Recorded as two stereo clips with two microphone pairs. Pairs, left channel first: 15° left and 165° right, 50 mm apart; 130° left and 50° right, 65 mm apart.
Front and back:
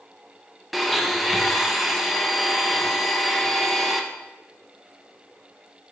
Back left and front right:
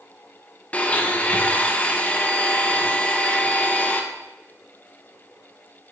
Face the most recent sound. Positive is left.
turn(degrees=105)